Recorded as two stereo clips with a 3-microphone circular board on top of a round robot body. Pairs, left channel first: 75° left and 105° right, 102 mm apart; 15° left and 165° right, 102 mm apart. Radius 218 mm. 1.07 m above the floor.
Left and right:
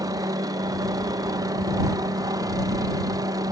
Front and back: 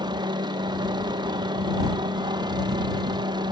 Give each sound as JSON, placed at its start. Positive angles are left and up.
{"t": 0.0, "sound": "a helicopter", "azimuth_deg": -145}